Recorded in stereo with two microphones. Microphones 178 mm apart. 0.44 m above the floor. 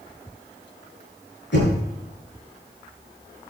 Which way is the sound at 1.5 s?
80° left.